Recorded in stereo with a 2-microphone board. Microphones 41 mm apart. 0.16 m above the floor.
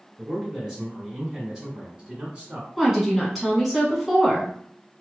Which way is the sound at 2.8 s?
Centre (ahead or behind).